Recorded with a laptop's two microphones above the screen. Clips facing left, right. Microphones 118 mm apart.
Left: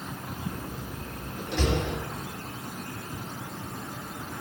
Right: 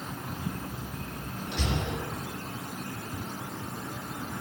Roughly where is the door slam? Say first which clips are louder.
Left 1 dB; left.